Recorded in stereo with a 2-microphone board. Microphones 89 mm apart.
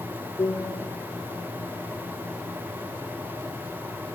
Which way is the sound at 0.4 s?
65° left (ahead or behind).